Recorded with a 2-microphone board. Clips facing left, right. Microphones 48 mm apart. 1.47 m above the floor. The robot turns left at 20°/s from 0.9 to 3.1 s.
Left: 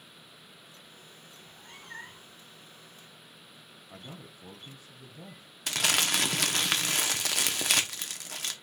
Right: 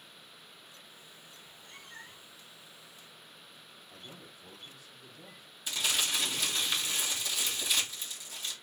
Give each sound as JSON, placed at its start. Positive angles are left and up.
{"t": 1.4, "sound": "a cat meowing", "side_deg": 65, "distance_m": 1.4}
{"t": 3.9, "sound": "a man speaking", "side_deg": 35, "distance_m": 0.8}
{"t": 5.7, "sound": "crumpling", "side_deg": 70, "distance_m": 0.6}